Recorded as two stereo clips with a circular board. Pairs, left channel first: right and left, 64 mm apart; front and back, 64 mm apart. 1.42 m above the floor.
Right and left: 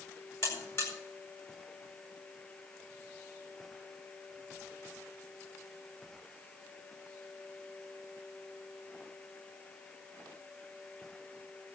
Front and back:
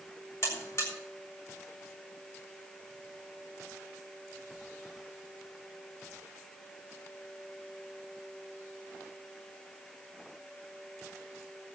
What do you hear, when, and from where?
0.4 s a buzzer: 50° right, 7 m